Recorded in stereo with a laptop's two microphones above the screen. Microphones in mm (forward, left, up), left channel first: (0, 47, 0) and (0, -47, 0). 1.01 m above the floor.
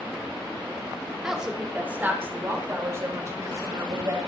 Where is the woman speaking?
5° right (ahead or behind), 3.5 m; by 4.2 s 40° right (ahead or behind), 5.5 m.